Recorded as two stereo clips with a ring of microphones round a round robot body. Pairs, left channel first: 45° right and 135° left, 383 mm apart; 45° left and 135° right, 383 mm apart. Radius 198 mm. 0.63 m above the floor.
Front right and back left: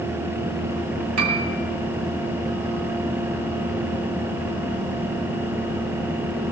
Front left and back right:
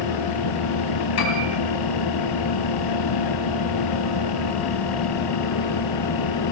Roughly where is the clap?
I don't hear a clap.